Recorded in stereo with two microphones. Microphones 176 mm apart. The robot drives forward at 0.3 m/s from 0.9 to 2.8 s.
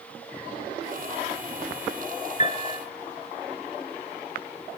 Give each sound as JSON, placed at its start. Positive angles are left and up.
{"t": 2.4, "sound": "a piano", "side_deg": 40, "distance_m": 1.9}